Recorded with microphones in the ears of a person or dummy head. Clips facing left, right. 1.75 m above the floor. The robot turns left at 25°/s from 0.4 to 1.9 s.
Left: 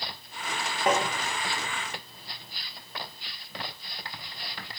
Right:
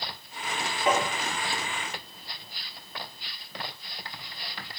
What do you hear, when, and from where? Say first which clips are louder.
0.9 s tapping: even; 40° left (ahead or behind), 0.6 m